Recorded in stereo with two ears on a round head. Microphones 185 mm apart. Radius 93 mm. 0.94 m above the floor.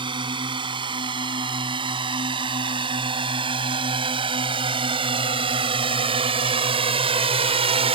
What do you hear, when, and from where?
0.0 s a drone: 25° right (ahead or behind); by 8.0 s 30° right (ahead or behind)